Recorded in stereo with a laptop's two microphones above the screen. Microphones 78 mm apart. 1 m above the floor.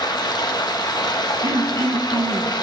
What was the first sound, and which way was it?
Running water, 65° left (ahead or behind).